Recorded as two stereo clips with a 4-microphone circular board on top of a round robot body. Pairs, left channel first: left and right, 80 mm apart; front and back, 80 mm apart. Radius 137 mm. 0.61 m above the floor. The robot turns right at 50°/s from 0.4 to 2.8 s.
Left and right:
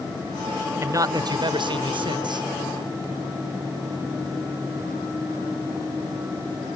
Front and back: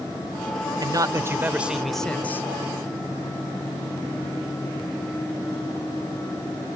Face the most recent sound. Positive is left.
turn(degrees=-45)